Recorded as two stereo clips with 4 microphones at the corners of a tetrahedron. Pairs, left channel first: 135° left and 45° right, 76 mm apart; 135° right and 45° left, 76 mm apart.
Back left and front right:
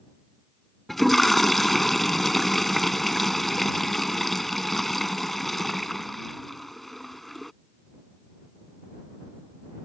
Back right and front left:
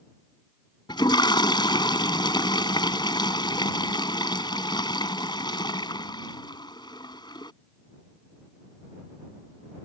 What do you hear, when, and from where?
0.9 s a toilet flushing: 135° right